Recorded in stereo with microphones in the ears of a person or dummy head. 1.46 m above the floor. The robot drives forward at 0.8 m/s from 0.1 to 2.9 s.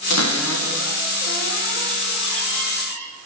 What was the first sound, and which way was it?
A cupboard door, 80° left.